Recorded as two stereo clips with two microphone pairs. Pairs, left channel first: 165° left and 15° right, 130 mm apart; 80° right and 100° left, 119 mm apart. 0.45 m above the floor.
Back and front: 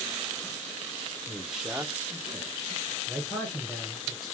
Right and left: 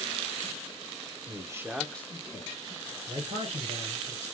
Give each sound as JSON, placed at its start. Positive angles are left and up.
{"t": 1.3, "sound": "a man speaking", "azimuth_deg": 75, "distance_m": 0.9}
{"t": 3.1, "sound": "a man speaking", "azimuth_deg": 90, "distance_m": 2.5}